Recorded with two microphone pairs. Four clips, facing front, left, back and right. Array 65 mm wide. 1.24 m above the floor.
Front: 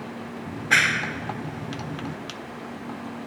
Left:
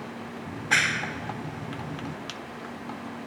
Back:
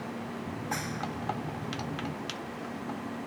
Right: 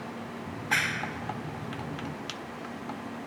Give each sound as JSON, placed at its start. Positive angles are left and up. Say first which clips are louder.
{"t": 0.5, "sound": "a clap", "louder": "left 4 dB, front 17 dB", "azimuth_deg": 0}